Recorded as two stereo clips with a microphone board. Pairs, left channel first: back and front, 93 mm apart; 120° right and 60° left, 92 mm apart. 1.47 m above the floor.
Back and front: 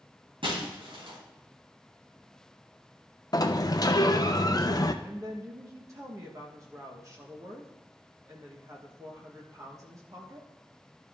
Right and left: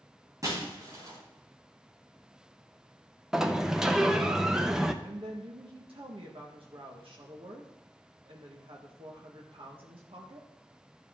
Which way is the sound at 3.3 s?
140° left.